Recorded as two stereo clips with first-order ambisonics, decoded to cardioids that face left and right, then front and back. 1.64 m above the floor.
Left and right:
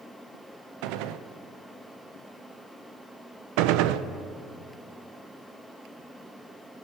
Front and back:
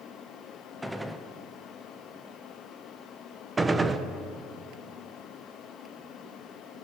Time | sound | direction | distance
0.8 | a gunshot | 95° right | 0.6 m
3.6 | a gunshot | 100° right | 0.6 m